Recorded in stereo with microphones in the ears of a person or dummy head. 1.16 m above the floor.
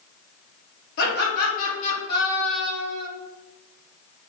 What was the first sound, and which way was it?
Laughter, 60° left (ahead or behind).